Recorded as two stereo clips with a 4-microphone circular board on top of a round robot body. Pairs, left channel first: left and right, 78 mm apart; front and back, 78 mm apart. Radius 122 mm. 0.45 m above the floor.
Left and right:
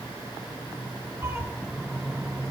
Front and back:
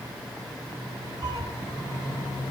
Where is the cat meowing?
150° right, 1.3 m.